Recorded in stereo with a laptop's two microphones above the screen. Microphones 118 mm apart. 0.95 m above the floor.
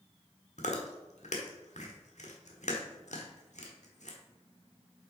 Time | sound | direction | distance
0.6 | chewing | 80° left | 1.3 m